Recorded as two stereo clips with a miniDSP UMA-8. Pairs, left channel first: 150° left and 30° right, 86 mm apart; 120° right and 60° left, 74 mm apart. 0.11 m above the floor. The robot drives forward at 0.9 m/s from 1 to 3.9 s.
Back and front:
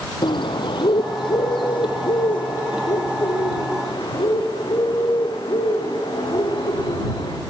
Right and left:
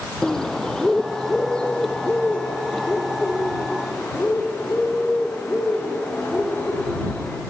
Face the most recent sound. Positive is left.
turn(degrees=170)